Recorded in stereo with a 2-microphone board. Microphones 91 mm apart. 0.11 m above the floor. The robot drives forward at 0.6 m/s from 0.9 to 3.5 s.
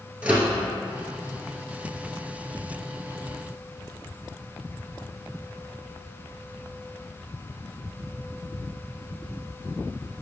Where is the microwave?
15° right (ahead or behind), 1.2 m.